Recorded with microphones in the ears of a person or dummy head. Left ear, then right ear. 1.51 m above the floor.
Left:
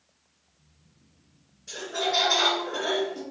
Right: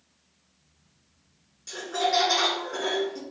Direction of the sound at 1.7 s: 70° right (ahead or behind).